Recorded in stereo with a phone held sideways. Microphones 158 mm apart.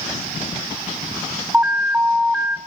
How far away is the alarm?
About 1.6 m.